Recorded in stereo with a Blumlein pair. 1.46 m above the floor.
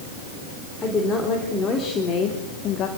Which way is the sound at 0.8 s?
20° left.